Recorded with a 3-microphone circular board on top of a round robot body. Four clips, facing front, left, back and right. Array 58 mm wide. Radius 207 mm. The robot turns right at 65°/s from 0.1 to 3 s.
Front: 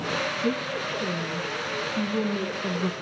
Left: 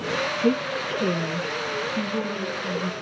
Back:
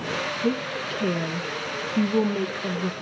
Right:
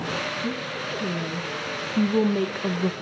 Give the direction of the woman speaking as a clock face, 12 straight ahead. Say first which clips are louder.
Left 6 dB, back 1 dB; 8 o'clock.